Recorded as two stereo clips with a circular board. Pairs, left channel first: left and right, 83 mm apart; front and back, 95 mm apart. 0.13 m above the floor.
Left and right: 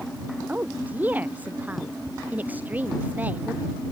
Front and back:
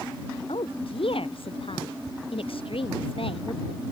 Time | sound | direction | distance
0.5 | a woman speaking | 20° right | ?